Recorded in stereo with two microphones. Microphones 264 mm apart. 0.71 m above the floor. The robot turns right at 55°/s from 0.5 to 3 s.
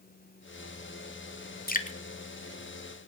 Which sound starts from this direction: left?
Dripping, at 1.7 s.